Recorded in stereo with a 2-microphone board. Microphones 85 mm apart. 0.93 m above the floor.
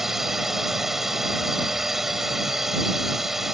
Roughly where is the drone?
Centre.